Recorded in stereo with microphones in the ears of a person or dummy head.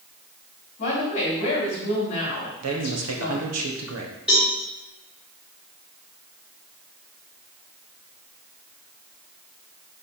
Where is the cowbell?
5° right (ahead or behind), 3 m.